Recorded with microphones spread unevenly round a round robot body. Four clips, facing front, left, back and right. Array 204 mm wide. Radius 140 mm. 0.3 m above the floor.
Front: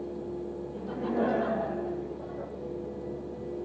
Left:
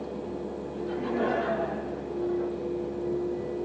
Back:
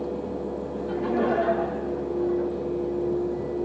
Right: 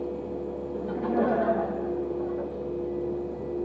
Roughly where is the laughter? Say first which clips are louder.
Right 3 dB, back 4 dB; ahead right.